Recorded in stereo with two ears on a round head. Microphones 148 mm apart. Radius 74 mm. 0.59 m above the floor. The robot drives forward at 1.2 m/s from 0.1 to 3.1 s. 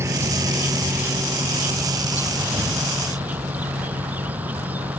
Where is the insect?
15° right (ahead or behind); by 5.0 s 10° right (ahead or behind).